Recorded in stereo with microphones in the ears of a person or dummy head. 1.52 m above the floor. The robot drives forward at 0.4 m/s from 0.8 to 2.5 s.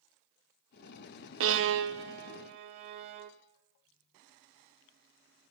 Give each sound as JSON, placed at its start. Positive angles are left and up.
{"t": 1.4, "sound": "a violin", "side_deg": -75, "distance_m": 0.6}